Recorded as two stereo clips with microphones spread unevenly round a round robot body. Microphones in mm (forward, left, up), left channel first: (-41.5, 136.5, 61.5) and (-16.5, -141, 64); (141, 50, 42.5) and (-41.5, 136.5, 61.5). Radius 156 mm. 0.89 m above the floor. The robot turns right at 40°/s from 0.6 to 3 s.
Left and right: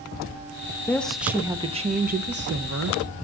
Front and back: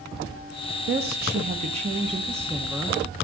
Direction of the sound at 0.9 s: 175° left.